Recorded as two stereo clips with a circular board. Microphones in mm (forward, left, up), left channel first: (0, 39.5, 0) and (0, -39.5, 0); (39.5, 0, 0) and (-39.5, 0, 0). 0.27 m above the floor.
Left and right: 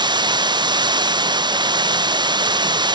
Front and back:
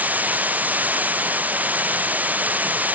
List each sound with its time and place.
0.0 s running water: 110° right